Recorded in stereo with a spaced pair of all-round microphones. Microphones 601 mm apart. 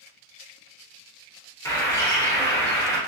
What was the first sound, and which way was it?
A bird, 5° left (ahead or behind).